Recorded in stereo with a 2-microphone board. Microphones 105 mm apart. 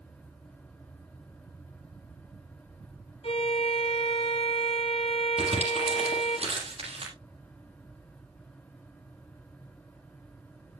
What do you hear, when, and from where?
3.2 s a violin: 65° left (ahead or behind), 1.5 m
5.4 s crumpling: 75° right (ahead or behind), 7 m